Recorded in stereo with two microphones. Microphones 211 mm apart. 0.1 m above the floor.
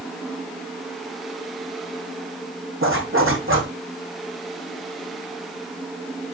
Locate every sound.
2.8 s a zipper: 75° right (ahead or behind), 4 m